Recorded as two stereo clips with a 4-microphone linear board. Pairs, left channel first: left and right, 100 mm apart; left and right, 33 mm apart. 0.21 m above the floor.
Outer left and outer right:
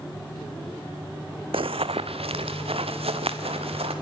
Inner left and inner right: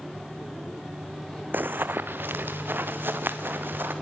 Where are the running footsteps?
70° right (ahead or behind), 0.5 m; by 3.9 s 75° right (ahead or behind), 2.5 m.